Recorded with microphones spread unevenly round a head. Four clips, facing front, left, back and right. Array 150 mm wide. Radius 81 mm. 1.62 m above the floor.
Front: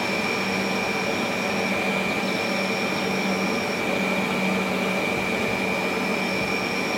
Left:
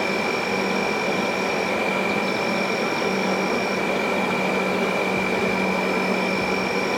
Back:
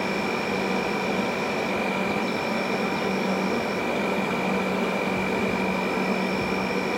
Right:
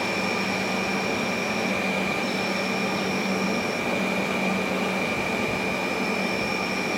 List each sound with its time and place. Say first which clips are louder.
0.0 s an insect: left 3 dB, even; 85° left, 0.7 m